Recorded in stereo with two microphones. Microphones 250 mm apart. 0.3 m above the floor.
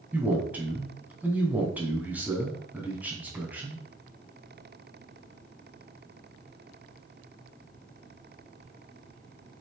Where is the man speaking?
5° right (ahead or behind), 2 m.